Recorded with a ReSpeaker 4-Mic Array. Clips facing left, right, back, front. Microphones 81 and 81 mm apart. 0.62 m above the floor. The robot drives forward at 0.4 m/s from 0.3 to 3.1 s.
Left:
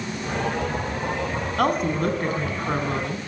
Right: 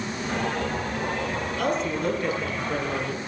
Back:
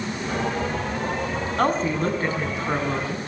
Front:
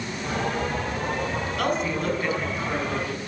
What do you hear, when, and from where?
1.6 s a woman speaking: 125° left, 5.5 m; by 3.2 s 130° left, 6 m